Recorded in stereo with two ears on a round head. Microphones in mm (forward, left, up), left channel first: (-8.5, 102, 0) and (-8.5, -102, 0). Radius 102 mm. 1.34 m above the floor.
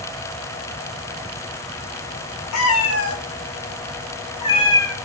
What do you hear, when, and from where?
2.5 s a cat meowing: 70° left (ahead or behind), 3 m; by 5.0 s 10° left (ahead or behind), 1.8 m